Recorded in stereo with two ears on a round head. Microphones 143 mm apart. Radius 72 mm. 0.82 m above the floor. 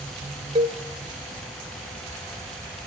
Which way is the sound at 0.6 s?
30° right (ahead or behind).